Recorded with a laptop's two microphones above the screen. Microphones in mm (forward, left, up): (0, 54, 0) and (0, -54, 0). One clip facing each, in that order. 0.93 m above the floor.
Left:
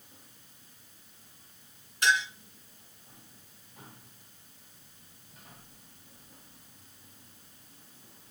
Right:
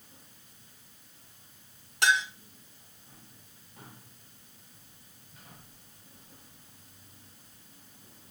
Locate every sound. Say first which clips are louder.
2.0 s a clink: right 1 dB; 85° right, 5.5 m